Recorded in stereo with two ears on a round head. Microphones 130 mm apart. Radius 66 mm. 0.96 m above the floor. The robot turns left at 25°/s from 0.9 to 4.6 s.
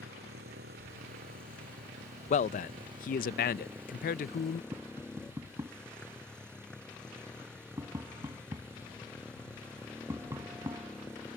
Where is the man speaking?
120° left; by 4.6 s 65° left.